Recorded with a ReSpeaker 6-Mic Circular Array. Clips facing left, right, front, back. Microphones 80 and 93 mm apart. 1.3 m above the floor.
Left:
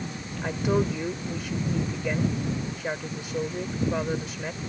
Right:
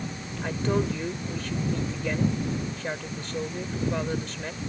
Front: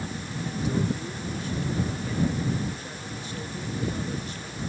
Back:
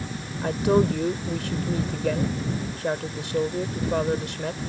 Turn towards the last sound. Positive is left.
turn(degrees=170)